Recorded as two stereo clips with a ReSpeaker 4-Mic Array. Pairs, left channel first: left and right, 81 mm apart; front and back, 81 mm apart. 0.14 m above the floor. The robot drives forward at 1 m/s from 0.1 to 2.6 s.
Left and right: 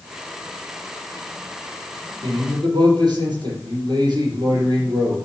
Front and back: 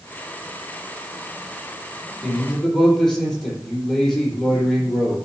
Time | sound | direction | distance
2.2 | a man speaking | 75° right | 4.5 m